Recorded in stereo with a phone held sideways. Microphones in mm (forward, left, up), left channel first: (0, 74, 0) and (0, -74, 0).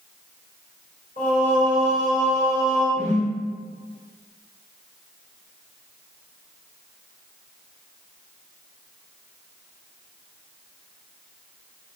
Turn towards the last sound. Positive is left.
turn(degrees=45)  # may be behind; listen again after turning